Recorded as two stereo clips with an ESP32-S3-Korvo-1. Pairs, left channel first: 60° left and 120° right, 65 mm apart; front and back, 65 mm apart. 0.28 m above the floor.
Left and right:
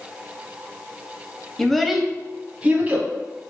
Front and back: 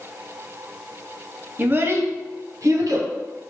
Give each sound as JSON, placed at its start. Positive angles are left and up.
{"t": 1.6, "sound": "a child speaking", "azimuth_deg": 140, "distance_m": 0.6}